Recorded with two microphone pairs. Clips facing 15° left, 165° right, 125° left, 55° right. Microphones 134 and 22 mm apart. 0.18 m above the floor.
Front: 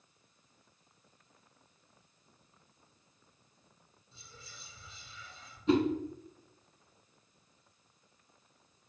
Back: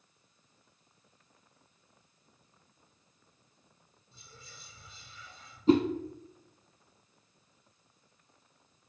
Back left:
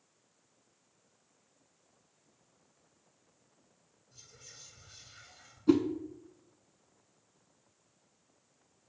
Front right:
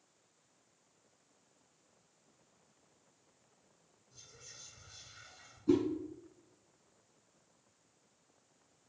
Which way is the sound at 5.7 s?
160° left.